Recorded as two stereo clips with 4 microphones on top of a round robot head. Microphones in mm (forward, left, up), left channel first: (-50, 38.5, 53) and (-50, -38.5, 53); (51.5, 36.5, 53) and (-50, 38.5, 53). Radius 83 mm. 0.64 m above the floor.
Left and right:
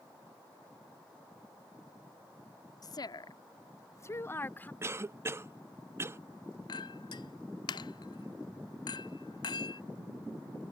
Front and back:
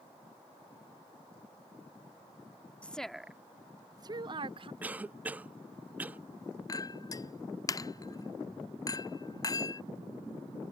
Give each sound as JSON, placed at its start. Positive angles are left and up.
{"t": 2.8, "sound": "a woman speaking", "azimuth_deg": 75}
{"t": 4.8, "sound": "a cough", "azimuth_deg": -115}
{"t": 6.7, "sound": "a clink", "azimuth_deg": 55}